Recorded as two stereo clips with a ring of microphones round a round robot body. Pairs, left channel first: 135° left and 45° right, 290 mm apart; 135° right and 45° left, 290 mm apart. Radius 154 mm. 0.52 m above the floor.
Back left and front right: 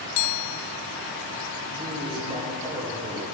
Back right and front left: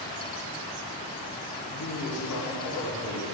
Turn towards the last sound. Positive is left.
turn(degrees=-120)